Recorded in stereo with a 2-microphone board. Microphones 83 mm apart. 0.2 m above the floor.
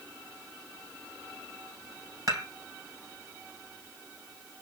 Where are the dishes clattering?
45° right (ahead or behind), 2.5 m.